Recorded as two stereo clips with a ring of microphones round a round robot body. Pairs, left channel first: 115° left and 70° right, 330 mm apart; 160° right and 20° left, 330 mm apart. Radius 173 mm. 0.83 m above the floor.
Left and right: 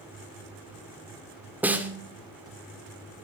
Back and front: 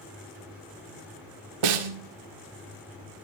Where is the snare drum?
20° left, 2 m.